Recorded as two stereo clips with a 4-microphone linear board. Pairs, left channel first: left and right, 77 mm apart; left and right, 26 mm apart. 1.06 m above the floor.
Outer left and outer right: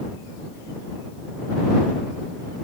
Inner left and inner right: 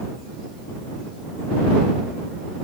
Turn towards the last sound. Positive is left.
No sound to turn to.